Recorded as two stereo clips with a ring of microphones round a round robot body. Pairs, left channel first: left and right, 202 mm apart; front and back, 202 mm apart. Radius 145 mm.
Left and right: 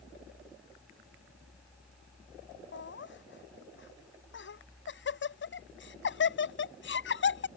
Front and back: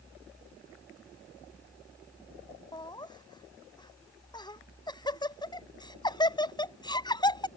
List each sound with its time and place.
2.7 s laughter: 70° left